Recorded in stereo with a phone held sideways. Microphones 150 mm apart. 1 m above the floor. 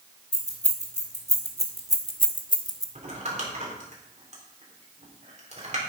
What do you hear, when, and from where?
0.3 s keys jangling: 50° left (ahead or behind), 2.5 m; by 2.9 s 20° left (ahead or behind), 1.0 m
3.0 s crumpling: 50° right (ahead or behind), 3.5 m